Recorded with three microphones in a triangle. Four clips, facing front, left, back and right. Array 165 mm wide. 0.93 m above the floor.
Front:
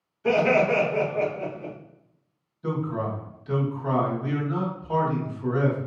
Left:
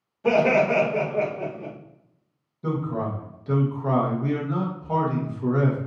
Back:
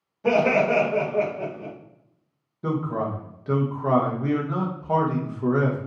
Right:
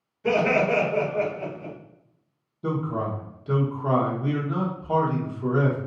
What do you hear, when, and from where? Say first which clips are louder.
0.2 s laughter: left 2 dB, back 1 dB; 155° left, 1.9 m; by 1.7 s 130° left, 1.9 m
2.6 s a man speaking: even, back 2 dB; 170° right, 1.2 m